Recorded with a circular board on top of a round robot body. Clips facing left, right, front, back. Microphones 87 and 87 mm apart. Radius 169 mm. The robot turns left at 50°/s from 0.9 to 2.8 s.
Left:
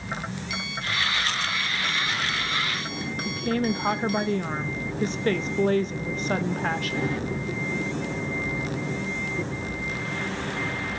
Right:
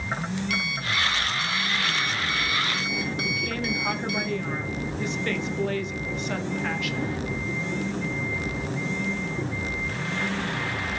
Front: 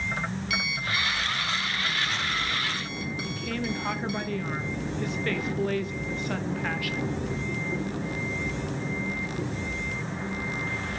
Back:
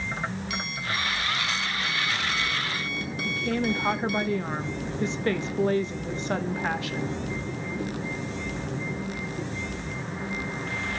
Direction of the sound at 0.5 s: 125° right.